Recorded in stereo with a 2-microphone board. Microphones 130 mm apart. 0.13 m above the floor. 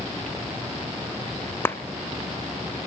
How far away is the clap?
About 0.9 m.